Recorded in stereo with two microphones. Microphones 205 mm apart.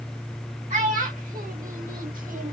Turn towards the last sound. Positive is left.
turn(degrees=-40)  # may be behind; listen again after turning